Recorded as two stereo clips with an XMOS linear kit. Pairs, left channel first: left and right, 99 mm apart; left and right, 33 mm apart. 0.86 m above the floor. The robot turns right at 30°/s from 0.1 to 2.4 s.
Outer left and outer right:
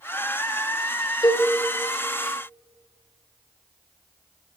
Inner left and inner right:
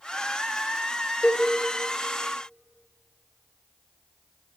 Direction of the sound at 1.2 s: 30° left (ahead or behind).